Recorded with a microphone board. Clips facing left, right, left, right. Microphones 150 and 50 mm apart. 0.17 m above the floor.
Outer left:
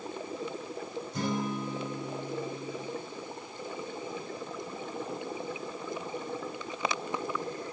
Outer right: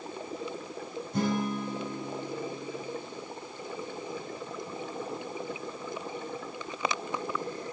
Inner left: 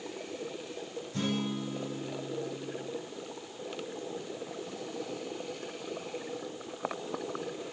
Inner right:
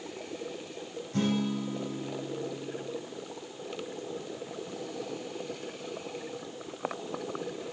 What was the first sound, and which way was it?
A guitar, 55° right (ahead or behind).